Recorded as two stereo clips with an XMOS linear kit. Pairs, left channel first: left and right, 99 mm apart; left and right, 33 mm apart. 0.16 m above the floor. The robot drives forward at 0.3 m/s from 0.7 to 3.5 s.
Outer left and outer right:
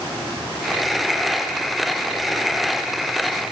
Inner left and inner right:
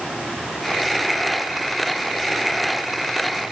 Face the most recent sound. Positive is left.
No sound to turn to.